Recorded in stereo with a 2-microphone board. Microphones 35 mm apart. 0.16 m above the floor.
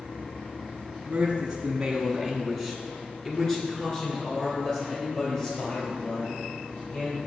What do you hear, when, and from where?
1.1 s a man speaking: 25° right (ahead or behind), 1.1 m; by 7.2 s 30° left (ahead or behind), 4 m